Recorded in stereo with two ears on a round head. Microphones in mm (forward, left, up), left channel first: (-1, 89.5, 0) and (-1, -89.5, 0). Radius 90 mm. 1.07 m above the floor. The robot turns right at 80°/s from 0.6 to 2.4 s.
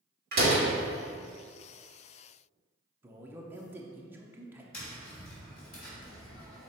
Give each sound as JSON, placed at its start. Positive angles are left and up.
{"t": 0.3, "sound": "a door slam", "side_deg": -55, "distance_m": 2.0}
{"t": 3.0, "sound": "a man speaking", "side_deg": -10, "distance_m": 0.7}
{"t": 4.7, "sound": "tapping", "side_deg": 50, "distance_m": 2.0}